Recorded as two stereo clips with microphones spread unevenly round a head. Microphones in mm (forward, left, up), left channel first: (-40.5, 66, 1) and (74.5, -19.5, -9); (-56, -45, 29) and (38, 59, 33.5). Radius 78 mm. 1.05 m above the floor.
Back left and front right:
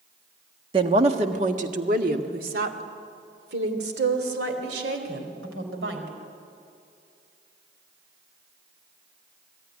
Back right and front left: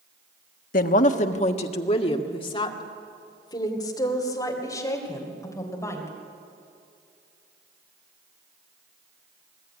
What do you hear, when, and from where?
0.7 s a woman speaking: 100° right, 1.3 m; by 6.1 s 60° right, 4 m